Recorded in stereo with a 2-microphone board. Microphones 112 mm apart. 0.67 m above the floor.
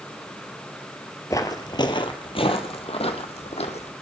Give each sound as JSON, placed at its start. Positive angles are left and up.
{"t": 1.3, "sound": "footsteps", "side_deg": 30, "distance_m": 0.9}